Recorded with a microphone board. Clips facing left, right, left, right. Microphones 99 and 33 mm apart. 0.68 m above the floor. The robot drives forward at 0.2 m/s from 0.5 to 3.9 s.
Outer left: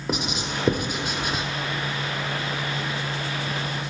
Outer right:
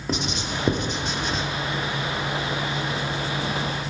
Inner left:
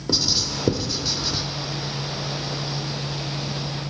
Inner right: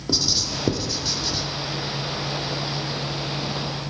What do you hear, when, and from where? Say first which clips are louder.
0.1 s writing: even, inner left 1 dB; 5° left (ahead or behind), 0.7 m; by 1.4 s 10° left (ahead or behind), 0.6 m